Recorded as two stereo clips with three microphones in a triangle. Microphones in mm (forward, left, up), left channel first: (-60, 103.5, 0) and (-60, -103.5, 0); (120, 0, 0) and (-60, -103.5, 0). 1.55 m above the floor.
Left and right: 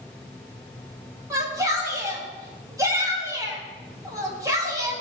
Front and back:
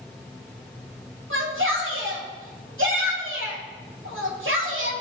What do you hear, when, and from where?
1.3 s a shout: 165° right, 3.5 m